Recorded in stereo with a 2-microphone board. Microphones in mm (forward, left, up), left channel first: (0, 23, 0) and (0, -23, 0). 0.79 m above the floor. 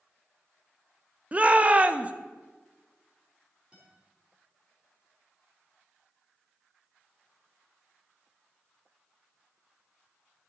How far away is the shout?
About 0.5 m.